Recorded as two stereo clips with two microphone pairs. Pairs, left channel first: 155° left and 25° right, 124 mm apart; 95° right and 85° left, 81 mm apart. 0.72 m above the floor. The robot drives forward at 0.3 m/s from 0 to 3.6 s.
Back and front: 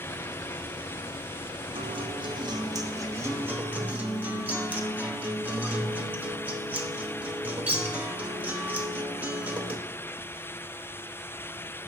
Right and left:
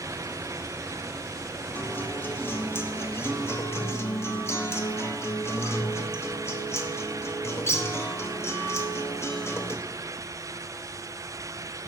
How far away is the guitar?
About 1.0 m.